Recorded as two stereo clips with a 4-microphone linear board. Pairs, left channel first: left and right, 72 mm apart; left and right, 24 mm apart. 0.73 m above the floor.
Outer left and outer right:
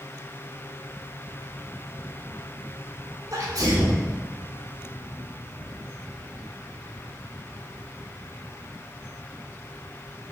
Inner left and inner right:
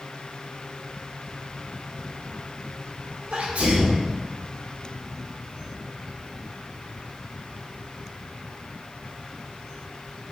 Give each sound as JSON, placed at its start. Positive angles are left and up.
{"t": 3.3, "sound": "a sneeze", "side_deg": -60, "distance_m": 2.5}